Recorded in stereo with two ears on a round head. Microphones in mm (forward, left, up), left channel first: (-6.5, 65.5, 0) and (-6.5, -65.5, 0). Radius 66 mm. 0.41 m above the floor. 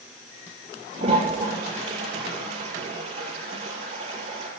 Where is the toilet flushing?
40° right (ahead or behind), 6.5 m.